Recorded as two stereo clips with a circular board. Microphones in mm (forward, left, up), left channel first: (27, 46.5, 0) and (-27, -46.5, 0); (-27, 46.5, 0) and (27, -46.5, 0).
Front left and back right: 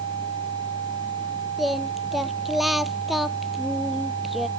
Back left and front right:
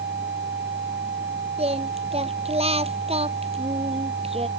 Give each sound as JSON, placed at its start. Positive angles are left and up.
{"t": 1.6, "sound": "singing", "azimuth_deg": -30}